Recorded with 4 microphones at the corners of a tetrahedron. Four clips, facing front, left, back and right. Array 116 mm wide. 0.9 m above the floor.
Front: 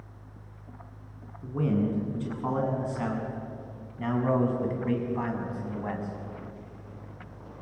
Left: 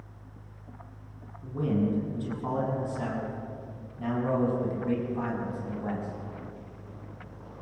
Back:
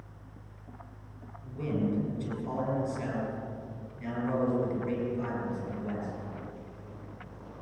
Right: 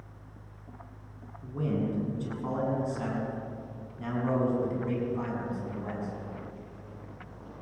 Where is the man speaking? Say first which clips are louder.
Left 3 dB, front 4 dB; 5° left, 8 m; by 6.1 s 15° left, 5.5 m.